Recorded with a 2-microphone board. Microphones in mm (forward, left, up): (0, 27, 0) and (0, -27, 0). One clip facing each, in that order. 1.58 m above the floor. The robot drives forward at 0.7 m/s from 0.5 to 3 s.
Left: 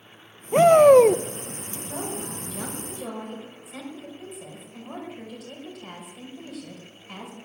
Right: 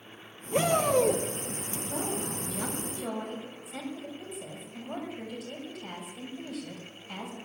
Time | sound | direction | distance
0.5 | a shout | 40° left (ahead or behind) | 0.8 m
1.9 | a woman speaking | 65° left (ahead or behind) | 6 m